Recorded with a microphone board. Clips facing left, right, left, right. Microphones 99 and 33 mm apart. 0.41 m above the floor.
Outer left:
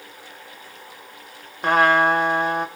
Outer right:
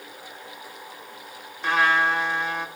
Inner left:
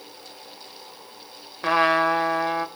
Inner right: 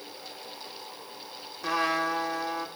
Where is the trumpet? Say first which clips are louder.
Outer left 5 dB, inner left 8 dB; 45° left (ahead or behind), 0.7 m.